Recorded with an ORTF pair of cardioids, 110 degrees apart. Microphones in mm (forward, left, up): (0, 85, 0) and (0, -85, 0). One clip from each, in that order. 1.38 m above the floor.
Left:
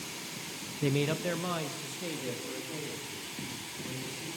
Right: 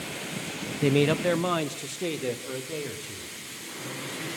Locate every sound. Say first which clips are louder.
0.8 s a man speaking: right 8 dB; 20° right, 0.5 m; by 4.3 s 50° right, 5 m